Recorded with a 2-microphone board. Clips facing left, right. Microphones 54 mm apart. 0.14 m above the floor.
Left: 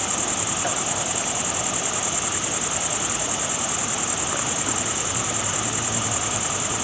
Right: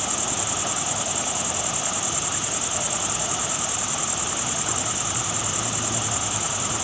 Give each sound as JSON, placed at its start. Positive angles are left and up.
{"t": 0.0, "sound": "an insect", "side_deg": 25}